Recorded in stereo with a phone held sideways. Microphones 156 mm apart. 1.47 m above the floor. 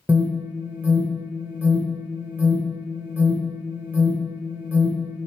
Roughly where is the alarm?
Centre.